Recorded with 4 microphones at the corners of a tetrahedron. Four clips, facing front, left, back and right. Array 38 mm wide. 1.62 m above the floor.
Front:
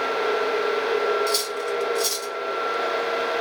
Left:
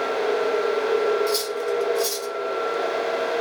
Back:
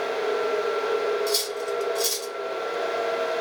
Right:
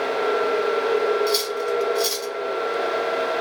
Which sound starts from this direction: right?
Cutlery clinking, at 1.3 s.